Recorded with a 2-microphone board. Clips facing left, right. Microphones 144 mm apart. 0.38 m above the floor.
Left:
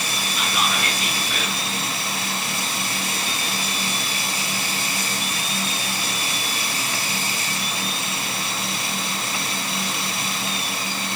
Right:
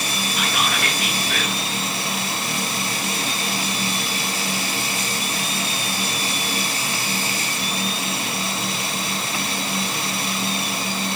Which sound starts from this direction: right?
Whispering, at 0.4 s.